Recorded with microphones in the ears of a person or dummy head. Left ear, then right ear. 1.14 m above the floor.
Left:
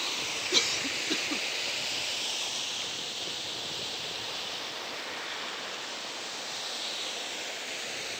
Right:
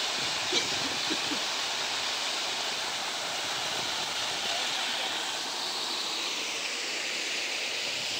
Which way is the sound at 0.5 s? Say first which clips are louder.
Left 5 dB; 10° left (ahead or behind).